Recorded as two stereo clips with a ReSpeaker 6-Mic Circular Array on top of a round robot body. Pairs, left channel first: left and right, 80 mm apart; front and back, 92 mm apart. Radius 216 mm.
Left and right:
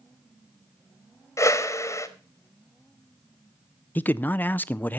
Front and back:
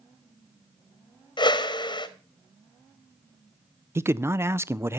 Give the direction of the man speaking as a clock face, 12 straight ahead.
7 o'clock.